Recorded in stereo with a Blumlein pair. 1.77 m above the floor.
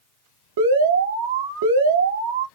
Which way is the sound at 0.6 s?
60° right.